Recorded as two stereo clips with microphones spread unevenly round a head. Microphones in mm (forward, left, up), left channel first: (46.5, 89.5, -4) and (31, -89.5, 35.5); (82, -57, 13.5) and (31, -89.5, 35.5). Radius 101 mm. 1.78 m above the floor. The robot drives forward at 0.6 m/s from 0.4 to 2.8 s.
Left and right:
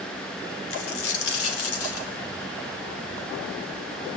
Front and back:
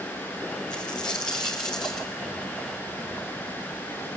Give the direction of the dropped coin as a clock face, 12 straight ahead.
9 o'clock.